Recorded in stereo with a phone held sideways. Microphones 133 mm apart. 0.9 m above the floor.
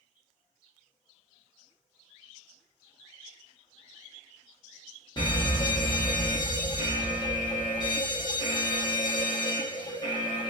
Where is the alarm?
35° left (ahead or behind), 1.3 m.